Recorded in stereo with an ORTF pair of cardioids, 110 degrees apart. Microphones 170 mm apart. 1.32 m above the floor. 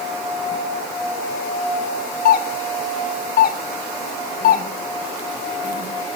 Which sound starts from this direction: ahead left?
A doorbell, at 2.2 s.